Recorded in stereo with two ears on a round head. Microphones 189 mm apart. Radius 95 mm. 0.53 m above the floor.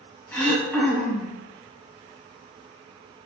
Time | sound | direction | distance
0.3 | throat clearing | 10° left (ahead or behind) | 0.6 m